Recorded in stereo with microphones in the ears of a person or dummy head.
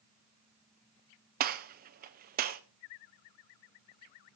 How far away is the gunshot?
About 0.7 m.